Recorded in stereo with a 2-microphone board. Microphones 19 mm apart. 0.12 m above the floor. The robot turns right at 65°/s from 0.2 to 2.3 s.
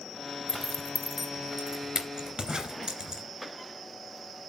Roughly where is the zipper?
Left.